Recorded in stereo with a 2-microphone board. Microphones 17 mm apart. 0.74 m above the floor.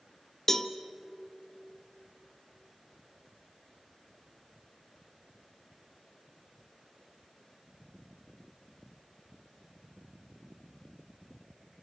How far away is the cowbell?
About 1.0 m.